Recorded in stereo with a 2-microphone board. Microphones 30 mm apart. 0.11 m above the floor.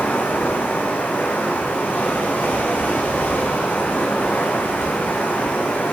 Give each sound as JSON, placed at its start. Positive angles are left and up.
{"t": 0.0, "sound": "running water", "side_deg": 75, "distance_m": 4.0}